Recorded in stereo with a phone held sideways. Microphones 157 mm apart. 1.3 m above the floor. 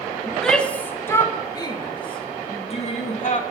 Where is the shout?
Centre (ahead or behind), 2 m; by 3.4 s 55° left (ahead or behind), 2.5 m.